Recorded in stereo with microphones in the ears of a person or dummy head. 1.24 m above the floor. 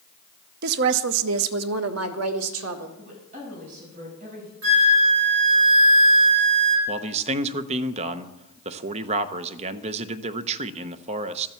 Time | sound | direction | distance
0.6 | a woman speaking | 55° right (ahead or behind) | 0.8 m
3.0 | a woman speaking | 40° right (ahead or behind) | 7 m
4.6 | a flute | 85° right | 2.5 m
6.9 | a man speaking | 35° right (ahead or behind) | 0.9 m